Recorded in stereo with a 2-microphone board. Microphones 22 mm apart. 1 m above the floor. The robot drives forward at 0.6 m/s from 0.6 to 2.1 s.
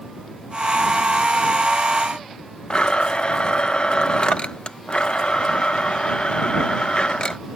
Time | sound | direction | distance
2.7 | a blender | 45° left (ahead or behind) | ?